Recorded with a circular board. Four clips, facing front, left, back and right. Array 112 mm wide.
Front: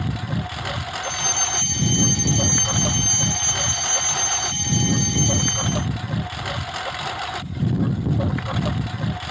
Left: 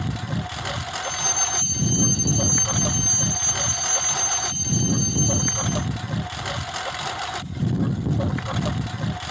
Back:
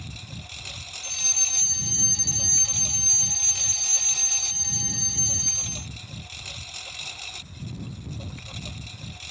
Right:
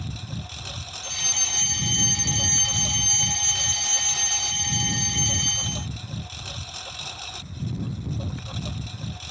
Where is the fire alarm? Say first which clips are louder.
Left 8 dB, front 16 dB; 55° right.